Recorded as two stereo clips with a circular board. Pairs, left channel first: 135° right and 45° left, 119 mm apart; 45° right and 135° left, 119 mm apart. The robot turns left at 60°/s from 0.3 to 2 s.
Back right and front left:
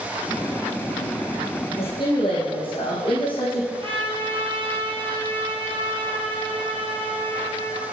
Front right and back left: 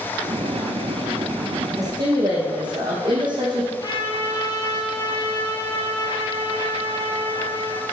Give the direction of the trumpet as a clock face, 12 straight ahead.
12 o'clock.